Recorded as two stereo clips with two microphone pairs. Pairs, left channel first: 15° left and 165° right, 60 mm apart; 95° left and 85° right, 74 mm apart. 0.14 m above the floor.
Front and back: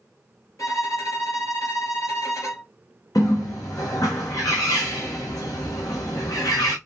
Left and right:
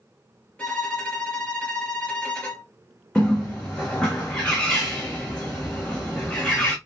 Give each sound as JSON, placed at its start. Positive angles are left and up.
{"t": 0.6, "sound": "a violin", "azimuth_deg": 20, "distance_m": 3.0}
{"t": 3.1, "sound": "a bird", "azimuth_deg": 15, "distance_m": 1.7}